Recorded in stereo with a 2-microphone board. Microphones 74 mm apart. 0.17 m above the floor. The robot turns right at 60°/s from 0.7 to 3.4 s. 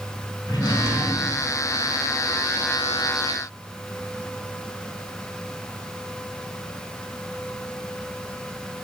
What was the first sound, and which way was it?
A drawer, 115° left.